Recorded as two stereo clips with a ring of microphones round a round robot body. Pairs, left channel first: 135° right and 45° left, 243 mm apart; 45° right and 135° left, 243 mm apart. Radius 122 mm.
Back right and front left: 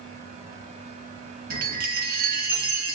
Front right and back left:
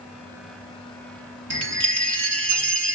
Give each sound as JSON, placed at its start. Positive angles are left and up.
{"t": 1.5, "sound": "a chime", "azimuth_deg": 105, "distance_m": 1.5}